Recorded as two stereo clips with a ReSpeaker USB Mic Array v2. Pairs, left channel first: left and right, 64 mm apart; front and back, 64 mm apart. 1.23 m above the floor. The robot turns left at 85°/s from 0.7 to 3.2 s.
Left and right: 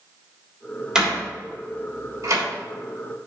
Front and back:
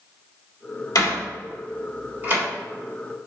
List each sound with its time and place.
0.9 s a door slam: 10° right, 3.5 m; by 2.4 s 135° right, 3.5 m